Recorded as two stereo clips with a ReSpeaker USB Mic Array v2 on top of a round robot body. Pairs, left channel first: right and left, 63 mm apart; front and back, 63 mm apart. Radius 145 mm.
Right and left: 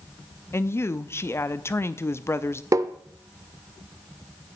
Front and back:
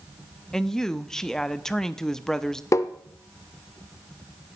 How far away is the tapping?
About 0.6 m.